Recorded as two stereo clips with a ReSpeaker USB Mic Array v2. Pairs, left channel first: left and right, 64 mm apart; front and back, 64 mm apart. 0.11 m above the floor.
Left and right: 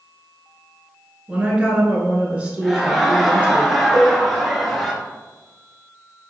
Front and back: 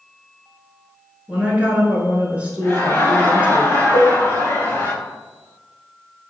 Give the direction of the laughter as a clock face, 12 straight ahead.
12 o'clock.